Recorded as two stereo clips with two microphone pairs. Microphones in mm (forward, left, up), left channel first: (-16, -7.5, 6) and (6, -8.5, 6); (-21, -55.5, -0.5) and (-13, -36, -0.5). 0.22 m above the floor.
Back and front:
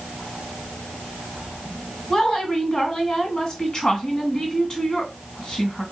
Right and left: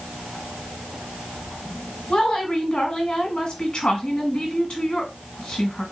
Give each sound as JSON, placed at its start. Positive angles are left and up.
{"t": 2.1, "sound": "a woman speaking", "azimuth_deg": -140, "distance_m": 1.5}